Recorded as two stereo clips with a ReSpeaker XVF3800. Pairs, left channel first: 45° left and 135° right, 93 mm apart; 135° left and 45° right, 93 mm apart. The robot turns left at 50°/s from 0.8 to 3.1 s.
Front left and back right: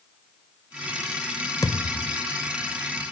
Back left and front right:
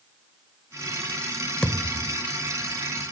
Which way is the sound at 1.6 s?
60° left.